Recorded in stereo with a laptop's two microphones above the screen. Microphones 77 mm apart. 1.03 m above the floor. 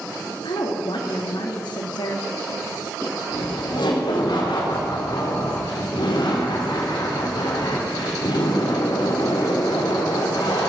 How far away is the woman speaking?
About 2 m.